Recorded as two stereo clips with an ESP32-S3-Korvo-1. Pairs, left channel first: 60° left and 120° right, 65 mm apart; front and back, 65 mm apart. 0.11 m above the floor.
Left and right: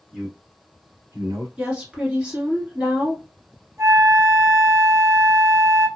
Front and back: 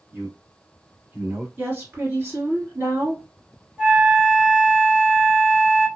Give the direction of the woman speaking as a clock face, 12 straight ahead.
6 o'clock.